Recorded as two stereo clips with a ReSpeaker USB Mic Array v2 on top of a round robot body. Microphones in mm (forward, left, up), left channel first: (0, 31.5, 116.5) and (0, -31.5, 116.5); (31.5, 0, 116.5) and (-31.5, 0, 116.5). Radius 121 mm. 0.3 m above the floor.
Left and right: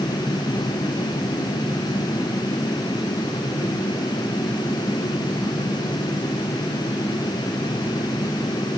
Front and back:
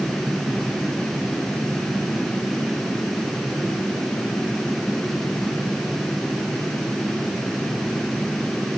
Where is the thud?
No thud in this recording.